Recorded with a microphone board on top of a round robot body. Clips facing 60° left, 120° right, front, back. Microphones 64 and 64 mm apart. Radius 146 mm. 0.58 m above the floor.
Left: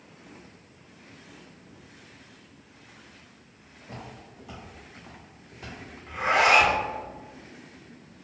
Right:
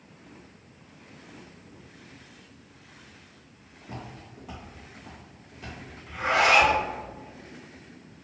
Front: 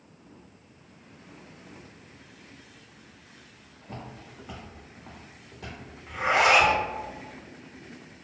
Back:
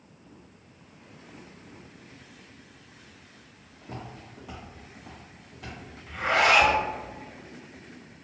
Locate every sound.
3.8 s footsteps: 165° right, 1.3 m; by 5.8 s 5° left, 0.6 m
6.1 s a zipper: 50° left, 1.0 m